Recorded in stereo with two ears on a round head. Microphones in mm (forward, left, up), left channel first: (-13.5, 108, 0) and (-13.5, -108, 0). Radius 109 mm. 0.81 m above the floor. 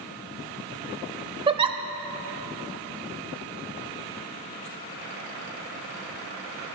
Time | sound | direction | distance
1.5 | a giggle | 20° right (ahead or behind) | 0.6 m